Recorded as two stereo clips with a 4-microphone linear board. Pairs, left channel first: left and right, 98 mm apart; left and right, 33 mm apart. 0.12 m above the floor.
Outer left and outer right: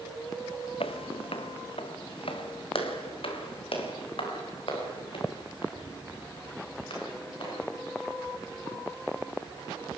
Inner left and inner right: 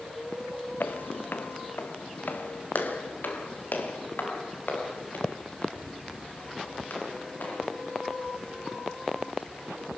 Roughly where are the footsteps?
Left.